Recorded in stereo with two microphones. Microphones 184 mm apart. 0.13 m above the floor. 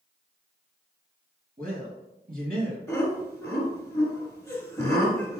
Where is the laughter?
10° left (ahead or behind), 1.3 m.